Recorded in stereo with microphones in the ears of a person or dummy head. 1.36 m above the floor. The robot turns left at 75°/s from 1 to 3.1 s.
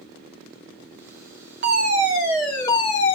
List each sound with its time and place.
1.6 s a fire alarm: 120° right, 3 m; by 3.1 s 130° left, 3 m